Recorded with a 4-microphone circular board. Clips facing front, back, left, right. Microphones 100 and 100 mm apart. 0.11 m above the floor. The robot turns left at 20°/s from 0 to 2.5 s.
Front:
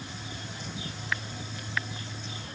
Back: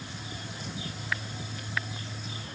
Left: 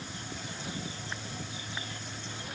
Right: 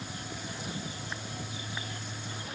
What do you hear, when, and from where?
Only background noise.